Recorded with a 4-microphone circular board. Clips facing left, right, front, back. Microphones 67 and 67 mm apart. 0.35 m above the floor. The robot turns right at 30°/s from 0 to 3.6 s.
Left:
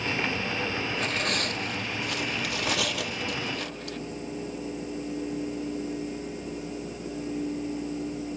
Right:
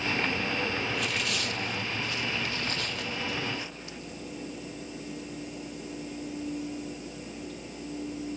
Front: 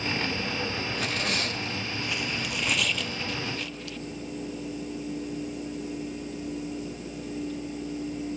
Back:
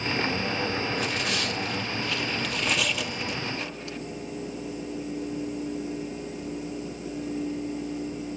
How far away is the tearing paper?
About 2.5 m.